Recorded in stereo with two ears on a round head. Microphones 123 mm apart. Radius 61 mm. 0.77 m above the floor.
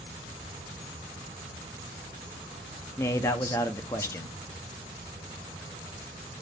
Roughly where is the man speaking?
Centre.